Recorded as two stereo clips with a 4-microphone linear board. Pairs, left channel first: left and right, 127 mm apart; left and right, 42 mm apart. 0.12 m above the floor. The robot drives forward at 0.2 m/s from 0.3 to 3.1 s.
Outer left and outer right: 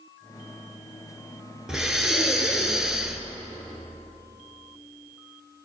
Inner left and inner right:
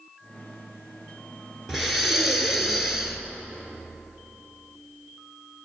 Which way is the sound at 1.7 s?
5° right (ahead or behind).